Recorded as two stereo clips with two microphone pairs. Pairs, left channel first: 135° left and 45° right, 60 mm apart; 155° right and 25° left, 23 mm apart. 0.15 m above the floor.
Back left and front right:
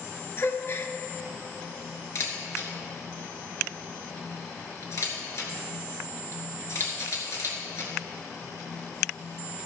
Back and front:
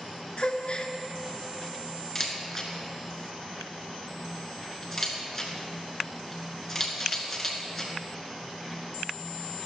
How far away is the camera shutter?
About 2 m.